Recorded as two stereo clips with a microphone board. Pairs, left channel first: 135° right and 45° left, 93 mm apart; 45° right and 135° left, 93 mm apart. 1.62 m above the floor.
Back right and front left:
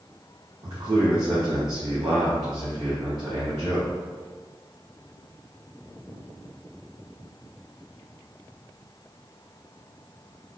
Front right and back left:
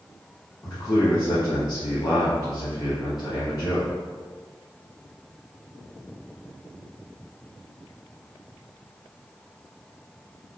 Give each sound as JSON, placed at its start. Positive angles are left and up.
{"t": 0.6, "sound": "a man speaking", "azimuth_deg": 5, "distance_m": 1.0}